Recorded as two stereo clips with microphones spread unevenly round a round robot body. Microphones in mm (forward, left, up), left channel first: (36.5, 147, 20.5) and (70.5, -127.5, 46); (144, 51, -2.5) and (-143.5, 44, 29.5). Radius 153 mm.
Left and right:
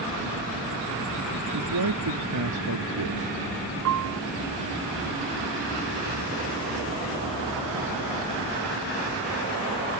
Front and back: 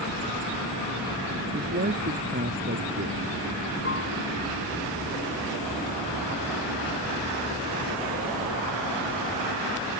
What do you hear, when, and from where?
1.5 s a man speaking: 115° right
3.9 s a piano: 55° right